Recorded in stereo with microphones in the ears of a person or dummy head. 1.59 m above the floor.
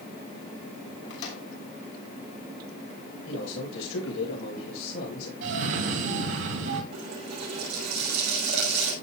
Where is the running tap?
60° right (ahead or behind), 6 m.